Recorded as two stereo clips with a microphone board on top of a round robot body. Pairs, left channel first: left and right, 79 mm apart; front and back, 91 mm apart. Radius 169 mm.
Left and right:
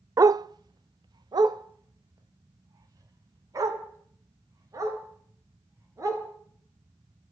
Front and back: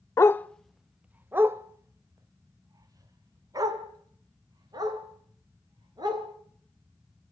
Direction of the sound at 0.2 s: 50° right.